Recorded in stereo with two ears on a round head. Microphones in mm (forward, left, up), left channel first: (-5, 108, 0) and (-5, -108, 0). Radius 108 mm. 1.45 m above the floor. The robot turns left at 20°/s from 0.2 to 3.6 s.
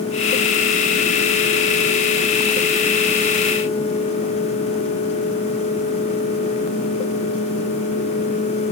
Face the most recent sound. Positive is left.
No sound to turn to.